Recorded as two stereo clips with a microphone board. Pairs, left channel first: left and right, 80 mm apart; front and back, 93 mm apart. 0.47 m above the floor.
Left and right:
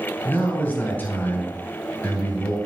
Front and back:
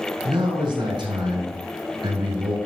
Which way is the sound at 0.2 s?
155° left.